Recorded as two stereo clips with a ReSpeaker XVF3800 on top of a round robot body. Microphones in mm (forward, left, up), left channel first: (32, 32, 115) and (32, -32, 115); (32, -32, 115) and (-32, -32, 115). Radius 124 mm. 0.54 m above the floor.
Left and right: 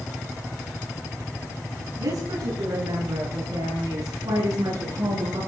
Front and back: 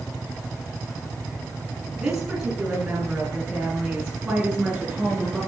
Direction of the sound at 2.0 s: 100° right.